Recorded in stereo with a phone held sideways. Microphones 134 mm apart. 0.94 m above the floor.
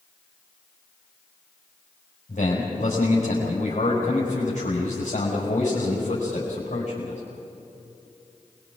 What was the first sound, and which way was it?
A man speaking, 55° left (ahead or behind).